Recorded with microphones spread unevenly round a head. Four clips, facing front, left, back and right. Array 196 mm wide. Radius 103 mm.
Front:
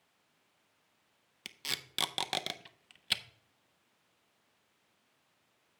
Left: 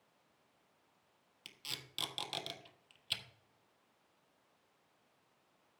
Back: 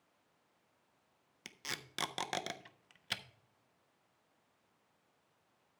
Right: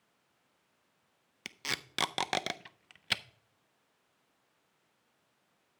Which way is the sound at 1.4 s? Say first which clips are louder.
Right 12 dB, front 1 dB; 85° right.